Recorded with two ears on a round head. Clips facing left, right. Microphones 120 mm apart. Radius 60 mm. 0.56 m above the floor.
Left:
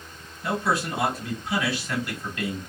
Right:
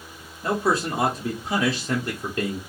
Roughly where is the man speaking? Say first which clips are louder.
Right 3 dB; right.